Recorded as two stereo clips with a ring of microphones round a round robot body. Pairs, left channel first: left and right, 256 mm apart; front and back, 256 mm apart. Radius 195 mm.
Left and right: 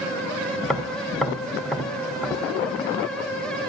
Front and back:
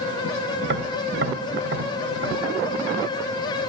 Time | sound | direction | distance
0.6 | tapping | straight behind | 1.0 m